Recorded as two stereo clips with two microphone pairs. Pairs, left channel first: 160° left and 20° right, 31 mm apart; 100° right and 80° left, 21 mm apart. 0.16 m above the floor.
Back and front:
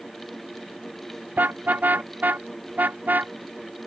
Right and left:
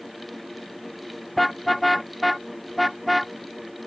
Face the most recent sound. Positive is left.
turn(degrees=-10)